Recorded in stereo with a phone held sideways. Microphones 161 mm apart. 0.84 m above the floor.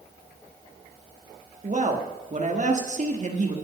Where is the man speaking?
50° right (ahead or behind), 1.4 m.